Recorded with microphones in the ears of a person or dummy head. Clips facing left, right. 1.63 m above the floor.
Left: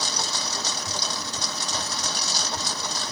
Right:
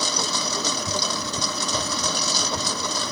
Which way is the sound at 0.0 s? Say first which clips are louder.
Right 4 dB; 75° right (ahead or behind).